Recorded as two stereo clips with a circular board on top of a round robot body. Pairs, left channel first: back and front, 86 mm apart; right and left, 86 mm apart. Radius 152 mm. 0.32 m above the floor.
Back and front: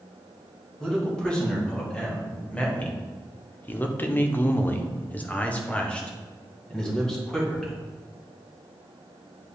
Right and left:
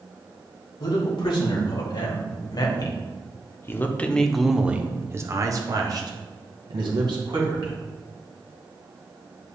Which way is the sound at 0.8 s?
100° right.